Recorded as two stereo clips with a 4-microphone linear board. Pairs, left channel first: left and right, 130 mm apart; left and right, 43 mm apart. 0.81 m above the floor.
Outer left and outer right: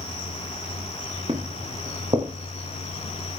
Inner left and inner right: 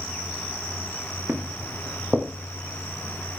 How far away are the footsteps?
About 3.5 m.